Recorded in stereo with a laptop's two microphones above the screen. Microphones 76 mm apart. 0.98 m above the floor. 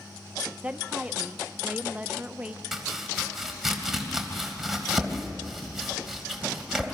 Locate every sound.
0.6 s a woman speaking: 15° right (ahead or behind), 0.8 m
2.7 s chopping: 5° right (ahead or behind), 3 m